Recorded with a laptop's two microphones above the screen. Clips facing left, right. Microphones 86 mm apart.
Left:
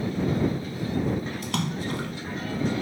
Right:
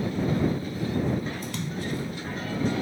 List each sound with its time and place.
1.4 s a splash: 80° left